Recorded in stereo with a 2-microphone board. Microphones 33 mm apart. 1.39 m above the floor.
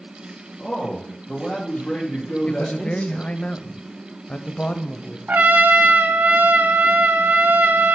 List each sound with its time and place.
0.6 s a man speaking: 35° left (ahead or behind), 1.4 m
2.5 s a man speaking: 35° left (ahead or behind), 0.6 m
5.3 s a trumpet: 70° right (ahead or behind), 0.6 m